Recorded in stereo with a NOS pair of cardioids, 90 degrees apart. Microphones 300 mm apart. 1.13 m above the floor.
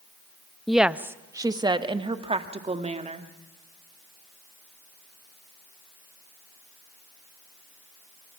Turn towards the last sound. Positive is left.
turn(degrees=-20)